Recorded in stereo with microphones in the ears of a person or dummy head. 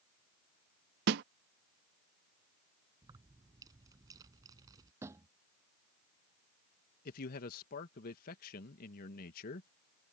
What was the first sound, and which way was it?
A snare drum, 50° right (ahead or behind).